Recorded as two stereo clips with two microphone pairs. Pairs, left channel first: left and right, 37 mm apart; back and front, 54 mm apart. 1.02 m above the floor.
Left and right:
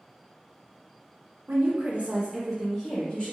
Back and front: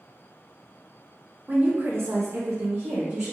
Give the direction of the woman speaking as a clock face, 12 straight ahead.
2 o'clock.